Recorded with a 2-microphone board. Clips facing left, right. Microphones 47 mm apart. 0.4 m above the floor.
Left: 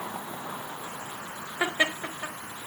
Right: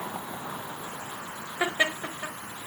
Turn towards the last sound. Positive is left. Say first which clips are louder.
# even
turn(degrees=15)  # may be behind; listen again after turning